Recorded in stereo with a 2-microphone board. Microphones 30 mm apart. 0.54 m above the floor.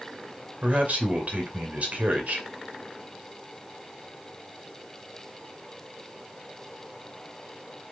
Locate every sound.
0.6 s a man speaking: 60° right (ahead or behind), 2.5 m